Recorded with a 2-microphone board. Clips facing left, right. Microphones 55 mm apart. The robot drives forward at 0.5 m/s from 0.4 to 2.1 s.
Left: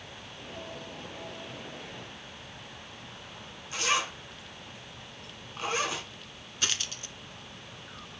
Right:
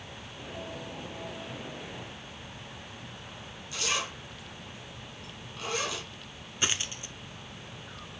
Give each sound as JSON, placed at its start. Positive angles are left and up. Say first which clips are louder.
{"t": 3.7, "sound": "a zipper", "louder": "left 4 dB", "side_deg": 35, "distance_m": 3.0}
{"t": 6.6, "sound": "a dropped coin", "louder": "right 2 dB", "side_deg": -20, "distance_m": 0.9}